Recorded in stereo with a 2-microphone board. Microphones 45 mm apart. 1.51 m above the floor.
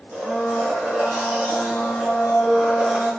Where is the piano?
I don't hear a piano.